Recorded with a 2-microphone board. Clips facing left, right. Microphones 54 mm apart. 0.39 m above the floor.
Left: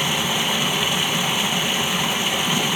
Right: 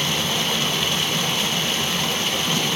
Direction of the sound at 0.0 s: 15° left (ahead or behind).